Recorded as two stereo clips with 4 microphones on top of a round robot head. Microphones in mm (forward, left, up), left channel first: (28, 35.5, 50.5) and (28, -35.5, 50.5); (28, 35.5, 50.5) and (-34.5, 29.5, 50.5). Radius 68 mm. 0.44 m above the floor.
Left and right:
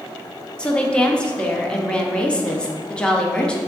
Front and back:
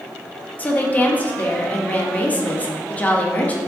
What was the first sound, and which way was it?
A woman speaking, 30° left.